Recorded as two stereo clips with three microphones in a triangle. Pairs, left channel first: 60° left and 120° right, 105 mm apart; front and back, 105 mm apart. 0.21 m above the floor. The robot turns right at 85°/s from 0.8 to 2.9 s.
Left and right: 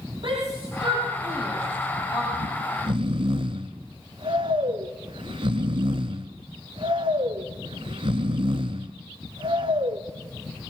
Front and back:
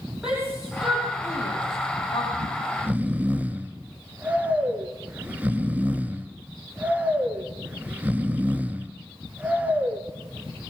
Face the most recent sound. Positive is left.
turn(degrees=-110)